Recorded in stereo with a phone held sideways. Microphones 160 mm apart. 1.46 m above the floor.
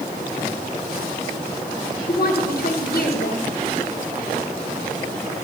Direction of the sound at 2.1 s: 65° left (ahead or behind).